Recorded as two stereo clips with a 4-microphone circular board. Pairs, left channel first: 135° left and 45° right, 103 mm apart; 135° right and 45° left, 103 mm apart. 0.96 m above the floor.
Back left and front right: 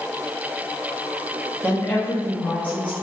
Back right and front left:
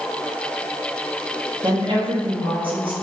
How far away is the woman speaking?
About 1.1 m.